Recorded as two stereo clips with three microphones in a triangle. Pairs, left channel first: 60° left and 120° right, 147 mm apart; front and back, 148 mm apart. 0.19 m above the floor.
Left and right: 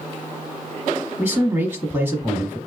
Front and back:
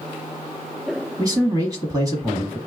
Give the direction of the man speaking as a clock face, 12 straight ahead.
6 o'clock.